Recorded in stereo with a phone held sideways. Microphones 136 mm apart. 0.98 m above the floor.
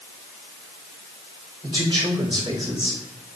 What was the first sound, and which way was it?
A man speaking, 30° right (ahead or behind).